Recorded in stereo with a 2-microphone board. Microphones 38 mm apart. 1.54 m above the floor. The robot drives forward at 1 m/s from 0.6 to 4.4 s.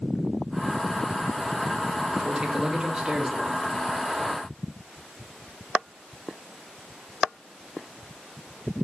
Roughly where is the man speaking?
Right.